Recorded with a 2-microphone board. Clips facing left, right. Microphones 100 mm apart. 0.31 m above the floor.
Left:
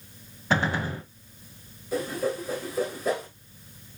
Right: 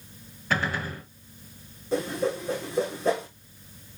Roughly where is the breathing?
I don't hear breathing.